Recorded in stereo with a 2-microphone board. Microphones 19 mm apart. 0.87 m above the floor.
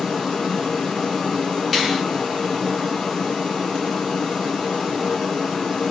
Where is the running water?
25° left (ahead or behind), 2.5 m.